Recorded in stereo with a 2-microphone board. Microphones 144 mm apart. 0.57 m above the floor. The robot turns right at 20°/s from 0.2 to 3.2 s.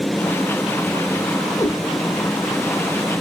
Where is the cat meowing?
20° left (ahead or behind), 1.1 m; by 1.8 s 25° left (ahead or behind), 1.1 m.